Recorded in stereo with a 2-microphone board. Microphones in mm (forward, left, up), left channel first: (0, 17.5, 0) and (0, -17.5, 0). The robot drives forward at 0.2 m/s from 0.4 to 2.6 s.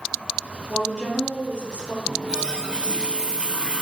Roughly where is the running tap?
Right.